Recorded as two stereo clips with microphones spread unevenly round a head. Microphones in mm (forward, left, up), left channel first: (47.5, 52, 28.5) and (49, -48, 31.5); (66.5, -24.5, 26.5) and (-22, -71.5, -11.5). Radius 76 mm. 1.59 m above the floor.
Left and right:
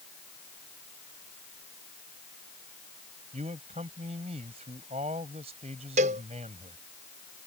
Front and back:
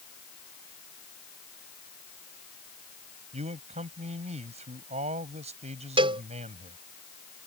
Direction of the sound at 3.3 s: 140° right.